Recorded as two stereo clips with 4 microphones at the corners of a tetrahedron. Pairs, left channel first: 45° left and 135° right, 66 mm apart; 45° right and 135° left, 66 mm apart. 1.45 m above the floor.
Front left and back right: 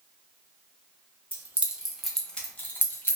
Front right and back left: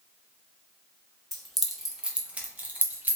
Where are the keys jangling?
120° right, 0.7 m; by 3.2 s 85° left, 0.9 m.